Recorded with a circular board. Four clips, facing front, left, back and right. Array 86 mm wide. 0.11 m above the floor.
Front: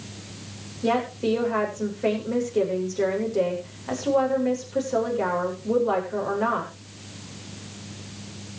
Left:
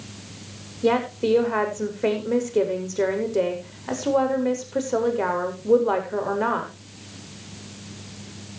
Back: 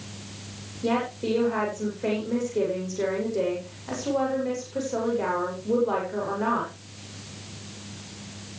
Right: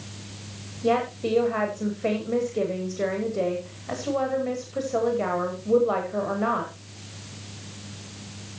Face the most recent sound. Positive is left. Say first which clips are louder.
# left 3 dB, front 2 dB
turn(degrees=80)